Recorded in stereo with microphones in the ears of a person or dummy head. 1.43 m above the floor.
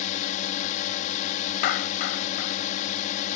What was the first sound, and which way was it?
A drone, 40° left (ahead or behind).